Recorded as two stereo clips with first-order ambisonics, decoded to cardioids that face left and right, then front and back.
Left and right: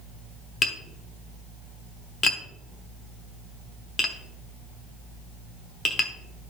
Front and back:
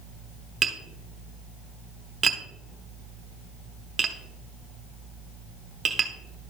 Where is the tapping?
130° left, 0.8 m.